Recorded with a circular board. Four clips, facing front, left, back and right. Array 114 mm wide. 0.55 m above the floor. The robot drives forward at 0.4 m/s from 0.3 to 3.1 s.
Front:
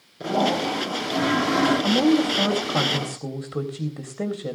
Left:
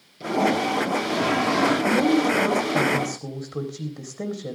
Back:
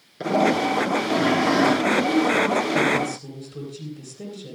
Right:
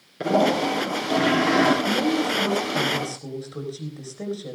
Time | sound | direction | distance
0.2 | a toilet flushing | 125° right | 10 m
1.8 | a woman speaking | 20° left | 4 m